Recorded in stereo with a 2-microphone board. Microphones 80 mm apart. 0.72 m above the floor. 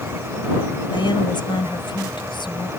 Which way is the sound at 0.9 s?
80° left.